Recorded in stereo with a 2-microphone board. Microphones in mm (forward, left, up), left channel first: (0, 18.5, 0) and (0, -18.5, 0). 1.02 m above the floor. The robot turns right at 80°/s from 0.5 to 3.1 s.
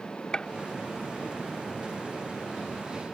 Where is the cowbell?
I don't hear a cowbell.